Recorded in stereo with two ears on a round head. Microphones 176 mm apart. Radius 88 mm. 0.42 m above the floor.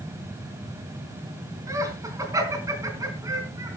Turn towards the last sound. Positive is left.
turn(degrees=-15)  # may be behind; listen again after turning